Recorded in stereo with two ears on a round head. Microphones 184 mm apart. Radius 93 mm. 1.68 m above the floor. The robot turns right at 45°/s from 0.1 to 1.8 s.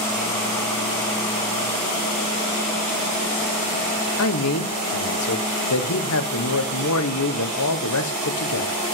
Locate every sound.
4.2 s a man speaking: 85° left, 1.4 m